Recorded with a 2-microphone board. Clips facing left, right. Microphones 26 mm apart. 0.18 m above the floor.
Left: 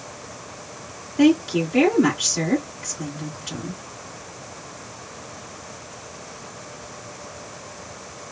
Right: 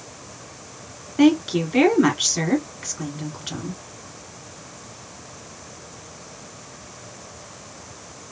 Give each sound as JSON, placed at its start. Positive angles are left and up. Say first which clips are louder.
{"t": 1.2, "sound": "a woman speaking", "louder": "even", "side_deg": -30, "distance_m": 1.8}